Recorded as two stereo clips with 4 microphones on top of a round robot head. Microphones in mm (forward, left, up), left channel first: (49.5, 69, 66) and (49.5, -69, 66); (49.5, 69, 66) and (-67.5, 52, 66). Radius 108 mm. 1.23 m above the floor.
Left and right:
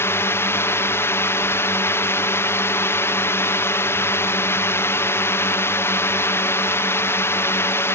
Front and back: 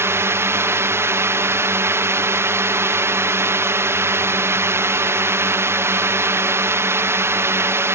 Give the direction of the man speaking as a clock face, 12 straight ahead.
No man speaking in this recording.